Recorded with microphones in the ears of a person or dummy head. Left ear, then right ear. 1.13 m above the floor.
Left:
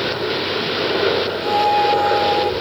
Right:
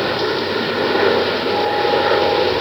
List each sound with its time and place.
0.0 s a helicopter: 35° right (ahead or behind)
1.4 s a flute: 75° left (ahead or behind)